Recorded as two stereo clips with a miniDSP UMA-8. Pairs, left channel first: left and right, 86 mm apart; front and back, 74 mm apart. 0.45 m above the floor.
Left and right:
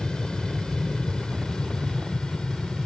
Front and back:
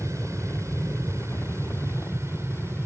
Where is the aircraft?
165° left.